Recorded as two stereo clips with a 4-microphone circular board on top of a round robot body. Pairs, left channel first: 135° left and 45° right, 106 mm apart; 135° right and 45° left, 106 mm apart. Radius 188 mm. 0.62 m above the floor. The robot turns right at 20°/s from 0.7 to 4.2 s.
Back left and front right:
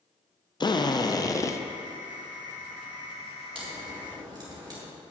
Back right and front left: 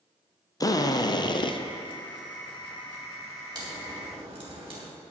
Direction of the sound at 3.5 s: 5° right.